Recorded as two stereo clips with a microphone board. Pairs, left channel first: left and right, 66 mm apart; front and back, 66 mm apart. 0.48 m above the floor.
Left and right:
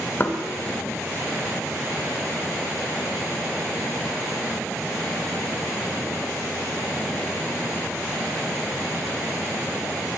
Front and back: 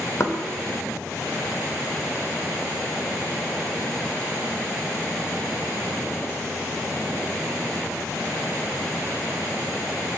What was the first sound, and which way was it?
Knocking, 40° left.